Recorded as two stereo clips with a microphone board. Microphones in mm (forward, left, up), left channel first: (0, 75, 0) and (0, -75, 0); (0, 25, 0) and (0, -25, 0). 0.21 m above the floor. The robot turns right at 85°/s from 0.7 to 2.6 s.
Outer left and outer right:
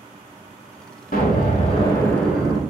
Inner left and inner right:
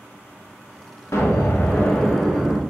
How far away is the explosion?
About 0.7 m.